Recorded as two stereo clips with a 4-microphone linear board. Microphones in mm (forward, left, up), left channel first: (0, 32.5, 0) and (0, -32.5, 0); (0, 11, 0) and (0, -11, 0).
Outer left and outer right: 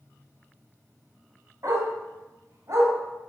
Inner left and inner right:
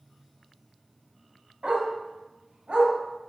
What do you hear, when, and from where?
1.6 s a dog barking: 55° right (ahead or behind), 2.5 m